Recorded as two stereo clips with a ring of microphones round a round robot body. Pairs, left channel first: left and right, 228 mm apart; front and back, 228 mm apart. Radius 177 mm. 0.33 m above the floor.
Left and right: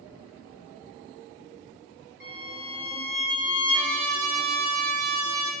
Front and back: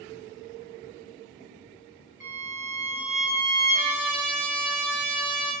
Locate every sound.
2.2 s a violin: 95° right, 1.2 m
3.7 s a trumpet: 100° right, 0.7 m